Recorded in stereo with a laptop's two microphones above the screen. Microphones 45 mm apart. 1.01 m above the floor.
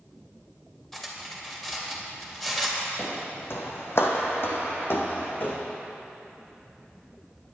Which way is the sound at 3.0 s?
50° left (ahead or behind).